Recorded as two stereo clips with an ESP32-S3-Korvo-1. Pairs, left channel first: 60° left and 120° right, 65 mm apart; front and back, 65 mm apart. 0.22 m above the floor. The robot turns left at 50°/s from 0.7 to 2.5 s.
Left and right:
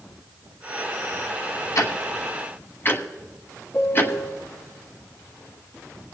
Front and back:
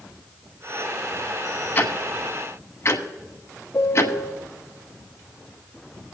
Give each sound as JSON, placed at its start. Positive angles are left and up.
{"t": 1.8, "sound": "ticking", "azimuth_deg": 55, "distance_m": 1.1}
{"t": 3.7, "sound": "a piano", "azimuth_deg": 20, "distance_m": 1.7}